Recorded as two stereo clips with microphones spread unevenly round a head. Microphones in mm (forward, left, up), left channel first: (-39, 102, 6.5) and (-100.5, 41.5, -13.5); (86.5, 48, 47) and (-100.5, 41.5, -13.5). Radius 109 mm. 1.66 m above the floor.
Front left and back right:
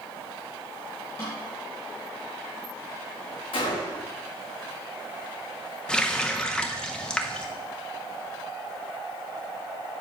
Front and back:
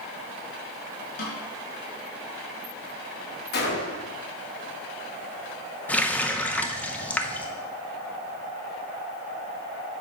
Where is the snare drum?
20° right, 4.5 m.